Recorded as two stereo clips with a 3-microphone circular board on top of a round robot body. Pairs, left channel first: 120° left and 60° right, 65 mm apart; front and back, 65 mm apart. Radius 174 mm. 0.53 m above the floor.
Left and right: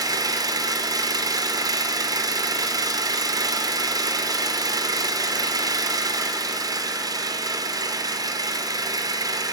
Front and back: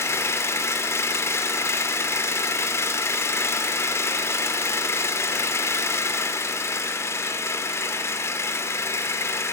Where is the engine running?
45° right, 2 m.